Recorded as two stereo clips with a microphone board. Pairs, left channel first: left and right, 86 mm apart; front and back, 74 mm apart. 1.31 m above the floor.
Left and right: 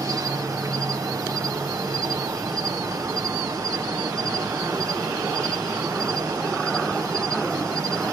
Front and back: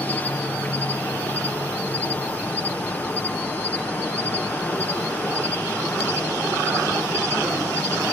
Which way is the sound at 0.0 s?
60° right.